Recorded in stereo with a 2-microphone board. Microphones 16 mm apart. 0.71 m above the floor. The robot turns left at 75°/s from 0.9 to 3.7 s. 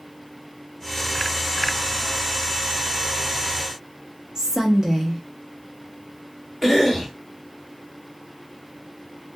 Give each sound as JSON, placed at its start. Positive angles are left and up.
{"t": 4.3, "sound": "a woman speaking", "side_deg": -40, "distance_m": 0.7}
{"t": 6.6, "sound": "a cough", "side_deg": -25, "distance_m": 1.9}